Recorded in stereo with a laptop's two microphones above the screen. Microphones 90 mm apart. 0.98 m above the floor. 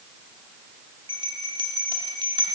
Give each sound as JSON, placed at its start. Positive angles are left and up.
{"t": 1.1, "sound": "a bell", "side_deg": -55, "distance_m": 1.0}